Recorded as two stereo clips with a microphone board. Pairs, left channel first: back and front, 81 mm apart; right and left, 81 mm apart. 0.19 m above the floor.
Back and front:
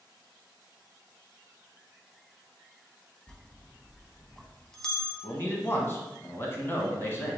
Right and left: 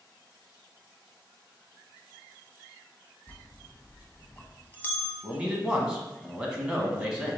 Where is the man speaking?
160° left, 1.2 m.